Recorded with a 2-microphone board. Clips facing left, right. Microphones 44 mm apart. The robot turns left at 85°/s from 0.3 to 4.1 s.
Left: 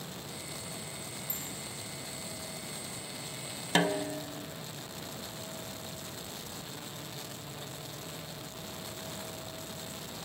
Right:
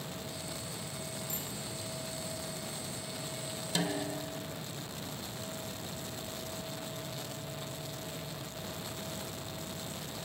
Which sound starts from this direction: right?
A bicycle bell, at 1.3 s.